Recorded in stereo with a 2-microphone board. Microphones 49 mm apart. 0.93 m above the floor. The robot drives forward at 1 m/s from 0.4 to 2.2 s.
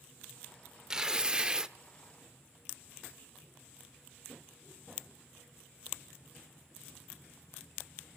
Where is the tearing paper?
15° right (ahead or behind), 0.7 m.